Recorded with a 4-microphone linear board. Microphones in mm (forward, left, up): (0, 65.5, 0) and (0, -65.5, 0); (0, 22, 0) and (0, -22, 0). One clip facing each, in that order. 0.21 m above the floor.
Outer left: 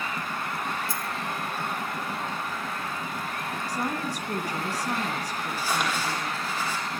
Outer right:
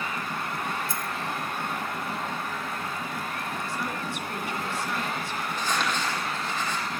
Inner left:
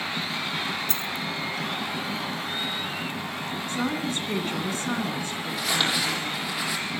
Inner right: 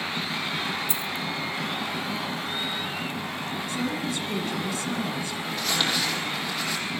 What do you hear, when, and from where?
0.9 s a dropped coin: 20° right (ahead or behind), 0.6 m
3.7 s a woman speaking: 45° left (ahead or behind), 2 m
5.5 s crumpling: 10° left (ahead or behind), 7 m